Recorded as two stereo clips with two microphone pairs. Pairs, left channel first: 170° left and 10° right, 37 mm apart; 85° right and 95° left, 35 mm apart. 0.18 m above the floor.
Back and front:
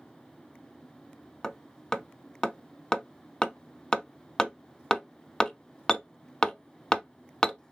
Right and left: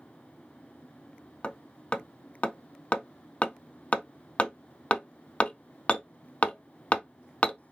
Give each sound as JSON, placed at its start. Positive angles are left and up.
{"t": 1.4, "sound": "hammering", "azimuth_deg": -125, "distance_m": 0.6}